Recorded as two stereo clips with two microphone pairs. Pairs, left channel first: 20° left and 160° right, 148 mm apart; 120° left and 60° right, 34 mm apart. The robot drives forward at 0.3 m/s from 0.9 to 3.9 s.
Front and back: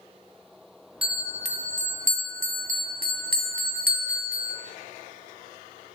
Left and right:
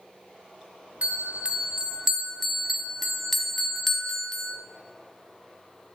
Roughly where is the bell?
Right.